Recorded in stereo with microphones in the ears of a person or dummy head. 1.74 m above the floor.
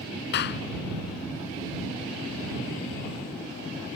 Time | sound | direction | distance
0.3 | a clap | 65° left (ahead or behind) | ?